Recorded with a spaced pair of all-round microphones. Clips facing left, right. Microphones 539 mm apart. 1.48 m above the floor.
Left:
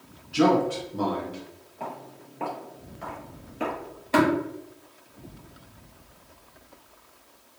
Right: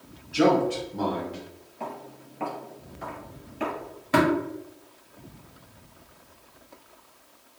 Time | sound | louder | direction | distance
0.3 | a man speaking | even | 20° left (ahead or behind) | 0.9 m
1.8 | footsteps | right 1 dB | 40° right (ahead or behind) | 1.9 m
4.1 | tapping | left 1 dB | 35° right (ahead or behind) | 1.6 m